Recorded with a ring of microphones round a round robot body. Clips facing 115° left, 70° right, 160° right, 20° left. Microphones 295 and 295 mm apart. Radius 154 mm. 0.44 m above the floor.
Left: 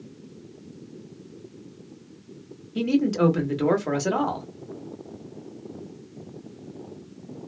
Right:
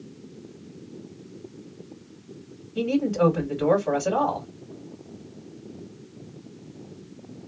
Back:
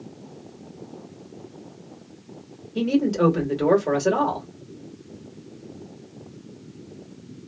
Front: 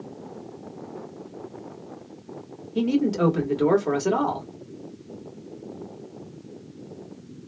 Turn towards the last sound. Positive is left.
turn(degrees=105)